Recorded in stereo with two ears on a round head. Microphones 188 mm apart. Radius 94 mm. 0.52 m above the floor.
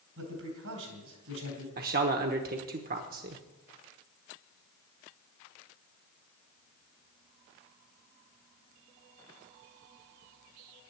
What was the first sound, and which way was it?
A man speaking, 80° right.